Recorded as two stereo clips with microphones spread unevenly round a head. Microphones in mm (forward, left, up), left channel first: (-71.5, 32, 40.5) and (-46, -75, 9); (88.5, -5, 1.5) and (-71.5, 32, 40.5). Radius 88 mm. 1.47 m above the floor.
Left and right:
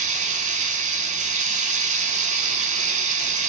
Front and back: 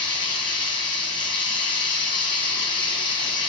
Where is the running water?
80° right, 0.9 m.